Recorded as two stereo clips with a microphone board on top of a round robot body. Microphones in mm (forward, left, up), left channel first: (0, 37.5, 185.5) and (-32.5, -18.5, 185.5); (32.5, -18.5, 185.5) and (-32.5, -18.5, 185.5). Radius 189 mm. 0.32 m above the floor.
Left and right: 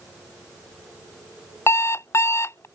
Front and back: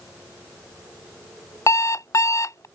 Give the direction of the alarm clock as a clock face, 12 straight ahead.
11 o'clock.